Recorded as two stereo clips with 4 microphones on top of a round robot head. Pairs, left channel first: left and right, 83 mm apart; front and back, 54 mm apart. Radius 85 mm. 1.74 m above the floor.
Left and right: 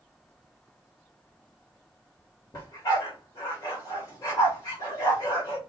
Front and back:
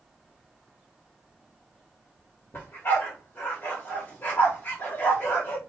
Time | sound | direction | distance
2.5 | a dog barking | 50° left | 3 m